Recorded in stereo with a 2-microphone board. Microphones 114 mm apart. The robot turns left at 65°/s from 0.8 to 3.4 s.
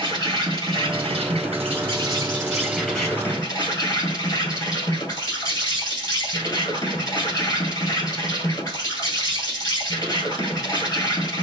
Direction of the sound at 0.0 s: 45° right.